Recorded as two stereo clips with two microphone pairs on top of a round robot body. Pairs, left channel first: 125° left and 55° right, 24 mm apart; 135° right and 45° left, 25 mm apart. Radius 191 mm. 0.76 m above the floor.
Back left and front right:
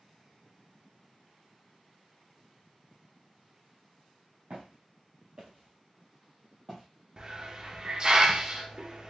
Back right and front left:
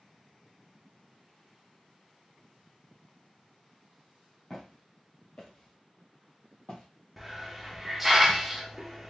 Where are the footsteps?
65° right, 1.2 m; by 6.8 s 155° right, 1.4 m.